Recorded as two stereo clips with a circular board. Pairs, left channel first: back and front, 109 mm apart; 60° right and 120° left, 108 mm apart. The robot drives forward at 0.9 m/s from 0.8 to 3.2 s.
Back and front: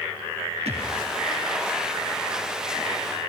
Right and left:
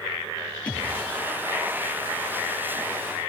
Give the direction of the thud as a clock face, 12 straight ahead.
11 o'clock.